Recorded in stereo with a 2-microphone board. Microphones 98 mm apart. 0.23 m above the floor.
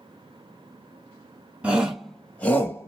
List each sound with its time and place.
1.6 s a shout: 15° right (ahead or behind), 1.2 m; by 2.9 s 30° left (ahead or behind), 1.2 m